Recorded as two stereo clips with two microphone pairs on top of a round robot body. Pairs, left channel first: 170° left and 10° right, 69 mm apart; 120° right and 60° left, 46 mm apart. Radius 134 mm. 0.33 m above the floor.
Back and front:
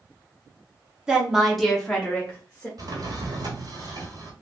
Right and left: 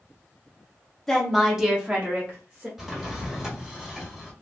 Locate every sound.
1.1 s a woman speaking: 55° right, 1.2 m; by 2.7 s 105° left, 1.5 m
2.8 s a drawer: 20° right, 1.1 m